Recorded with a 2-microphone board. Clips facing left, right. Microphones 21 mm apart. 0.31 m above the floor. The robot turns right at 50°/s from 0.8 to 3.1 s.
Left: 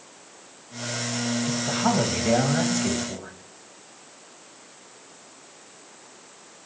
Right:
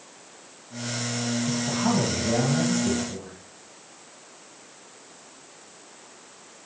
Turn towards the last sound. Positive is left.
turn(degrees=110)